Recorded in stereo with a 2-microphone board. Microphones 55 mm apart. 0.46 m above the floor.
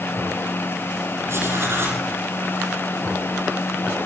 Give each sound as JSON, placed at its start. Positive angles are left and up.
{"t": 1.3, "sound": "writing", "side_deg": -50, "distance_m": 8.0}